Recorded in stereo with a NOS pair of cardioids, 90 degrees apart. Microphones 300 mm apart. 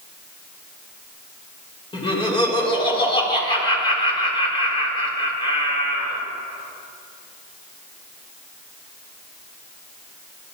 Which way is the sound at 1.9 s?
15° left.